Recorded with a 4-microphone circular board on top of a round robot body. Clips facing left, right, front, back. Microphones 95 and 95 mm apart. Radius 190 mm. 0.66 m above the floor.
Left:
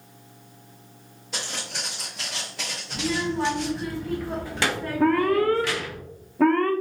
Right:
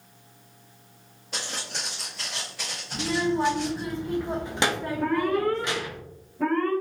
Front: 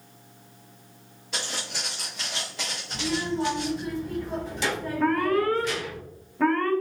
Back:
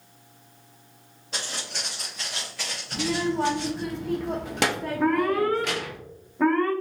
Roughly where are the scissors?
I don't hear scissors.